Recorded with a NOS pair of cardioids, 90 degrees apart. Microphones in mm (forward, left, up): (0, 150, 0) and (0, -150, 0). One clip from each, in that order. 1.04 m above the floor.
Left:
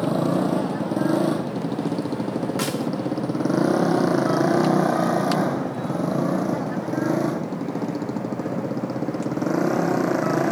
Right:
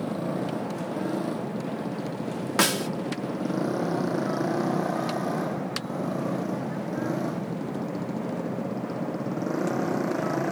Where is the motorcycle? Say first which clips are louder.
Left 8 dB; 65° left; by 10.5 s 40° left.